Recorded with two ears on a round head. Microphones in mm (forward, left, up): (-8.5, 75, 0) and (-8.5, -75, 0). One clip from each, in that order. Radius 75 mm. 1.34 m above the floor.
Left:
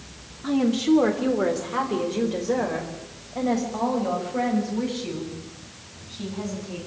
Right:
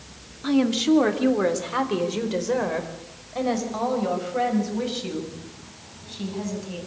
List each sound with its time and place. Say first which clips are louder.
0.4 s a woman speaking: right 1 dB; 85° right, 2.5 m; by 6.8 s 80° right, 8.5 m